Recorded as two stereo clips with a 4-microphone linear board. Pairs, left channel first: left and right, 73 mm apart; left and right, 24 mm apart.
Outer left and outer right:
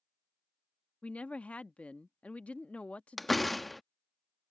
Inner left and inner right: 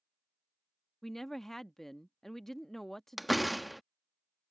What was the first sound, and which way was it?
A woman speaking, 20° left (ahead or behind).